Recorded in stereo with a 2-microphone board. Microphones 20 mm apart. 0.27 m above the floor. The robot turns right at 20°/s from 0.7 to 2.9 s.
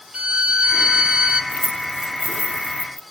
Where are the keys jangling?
35° right (ahead or behind), 0.9 m; by 3.0 s 50° right (ahead or behind), 0.9 m.